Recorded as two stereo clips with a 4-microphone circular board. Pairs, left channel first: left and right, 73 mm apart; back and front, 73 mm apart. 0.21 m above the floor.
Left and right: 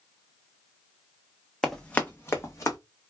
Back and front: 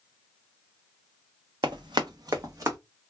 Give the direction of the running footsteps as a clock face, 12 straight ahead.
12 o'clock.